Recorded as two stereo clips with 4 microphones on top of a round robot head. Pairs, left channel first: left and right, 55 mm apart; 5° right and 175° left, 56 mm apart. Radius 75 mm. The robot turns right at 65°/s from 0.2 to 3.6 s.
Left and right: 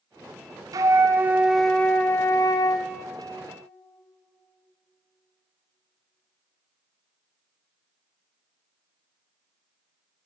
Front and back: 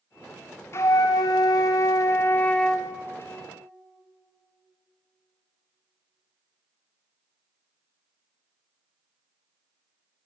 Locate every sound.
0.7 s a flute: 60° right, 0.6 m; by 2.9 s 80° left, 0.6 m